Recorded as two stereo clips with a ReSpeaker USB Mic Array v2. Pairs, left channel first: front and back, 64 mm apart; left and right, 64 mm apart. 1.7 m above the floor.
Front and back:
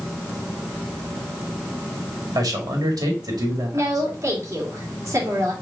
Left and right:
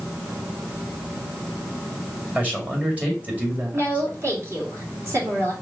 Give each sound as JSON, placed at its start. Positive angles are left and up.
{"t": 2.4, "sound": "a man speaking", "azimuth_deg": -155, "distance_m": 2.0}
{"t": 3.7, "sound": "a woman speaking", "azimuth_deg": -135, "distance_m": 2.0}